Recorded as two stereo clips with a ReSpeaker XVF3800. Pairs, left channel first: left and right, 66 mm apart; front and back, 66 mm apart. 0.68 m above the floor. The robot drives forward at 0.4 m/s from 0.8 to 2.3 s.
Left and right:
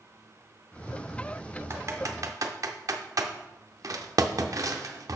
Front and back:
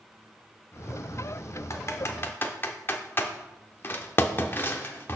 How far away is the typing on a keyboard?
About 0.8 m.